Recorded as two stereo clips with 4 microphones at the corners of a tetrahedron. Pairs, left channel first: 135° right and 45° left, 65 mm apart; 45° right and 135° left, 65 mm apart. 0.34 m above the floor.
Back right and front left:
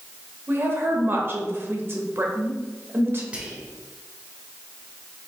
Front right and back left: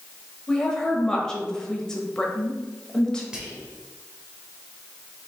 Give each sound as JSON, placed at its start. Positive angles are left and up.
{"t": 0.5, "sound": "a woman speaking", "azimuth_deg": 30, "distance_m": 1.0}
{"t": 3.3, "sound": "whispering", "azimuth_deg": 85, "distance_m": 1.0}